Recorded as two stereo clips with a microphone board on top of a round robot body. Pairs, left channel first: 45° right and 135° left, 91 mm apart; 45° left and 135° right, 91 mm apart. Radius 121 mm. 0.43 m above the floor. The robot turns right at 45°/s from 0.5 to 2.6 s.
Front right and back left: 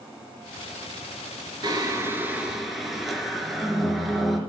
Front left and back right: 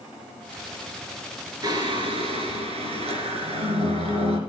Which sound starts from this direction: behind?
Singing, at 1.6 s.